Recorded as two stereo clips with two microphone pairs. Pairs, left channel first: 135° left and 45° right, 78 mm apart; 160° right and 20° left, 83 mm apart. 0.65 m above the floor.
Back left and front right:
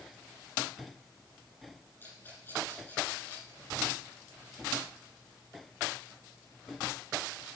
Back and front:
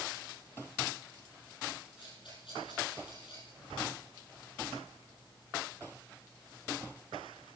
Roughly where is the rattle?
Behind.